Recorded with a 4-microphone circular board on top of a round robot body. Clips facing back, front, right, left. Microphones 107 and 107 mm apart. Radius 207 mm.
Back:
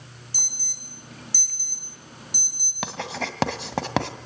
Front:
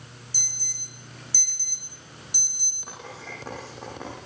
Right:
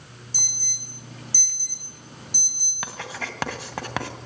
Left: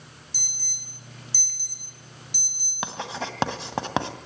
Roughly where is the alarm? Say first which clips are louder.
Back 2 dB, right 5 dB; behind right.